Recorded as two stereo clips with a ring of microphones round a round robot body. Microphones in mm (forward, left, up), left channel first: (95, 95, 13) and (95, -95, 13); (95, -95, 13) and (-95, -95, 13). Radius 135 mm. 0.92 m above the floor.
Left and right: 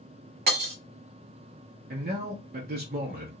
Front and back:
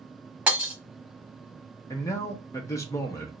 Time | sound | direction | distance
0.5 | breaking glass | 100° right | 1.1 m
1.9 | a man speaking | 70° right | 0.7 m